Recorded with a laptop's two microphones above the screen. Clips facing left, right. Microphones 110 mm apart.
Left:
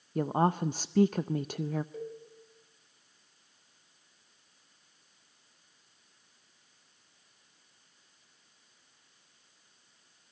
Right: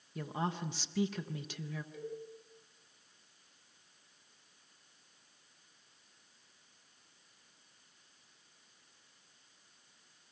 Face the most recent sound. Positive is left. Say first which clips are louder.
# left 3 dB
turn(degrees=40)  # may be behind; listen again after turning